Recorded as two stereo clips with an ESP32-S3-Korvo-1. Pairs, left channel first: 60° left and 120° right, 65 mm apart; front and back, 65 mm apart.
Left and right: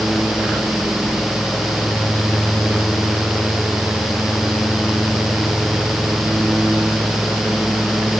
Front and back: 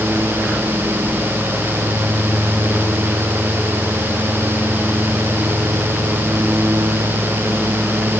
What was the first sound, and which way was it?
Only background noise.